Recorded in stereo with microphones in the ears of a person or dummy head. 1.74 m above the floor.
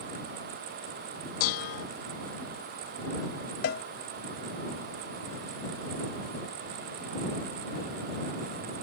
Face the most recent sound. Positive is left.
turn(degrees=55)  # may be behind; listen again after turning